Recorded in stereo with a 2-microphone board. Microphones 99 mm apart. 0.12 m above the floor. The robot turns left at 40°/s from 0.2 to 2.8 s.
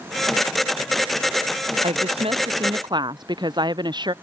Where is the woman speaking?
95° right; by 4.1 s 135° right.